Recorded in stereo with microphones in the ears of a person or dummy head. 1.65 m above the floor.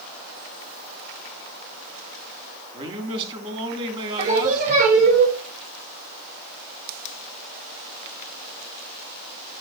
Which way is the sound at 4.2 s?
40° right (ahead or behind).